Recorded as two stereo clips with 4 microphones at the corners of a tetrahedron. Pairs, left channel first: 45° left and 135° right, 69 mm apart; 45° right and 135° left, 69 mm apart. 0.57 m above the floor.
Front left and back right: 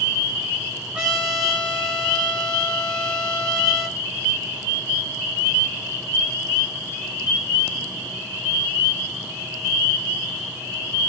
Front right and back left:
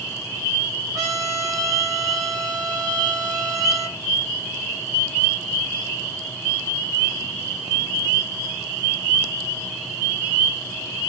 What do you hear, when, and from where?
0.9 s a trumpet: 150° left, 1.5 m